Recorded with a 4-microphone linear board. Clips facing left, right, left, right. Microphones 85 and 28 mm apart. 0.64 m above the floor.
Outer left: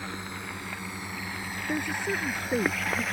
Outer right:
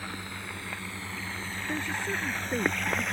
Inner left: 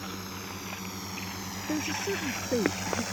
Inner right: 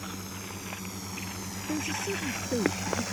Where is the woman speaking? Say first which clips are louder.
Outer left 3 dB, inner left 1 dB; 20° left (ahead or behind).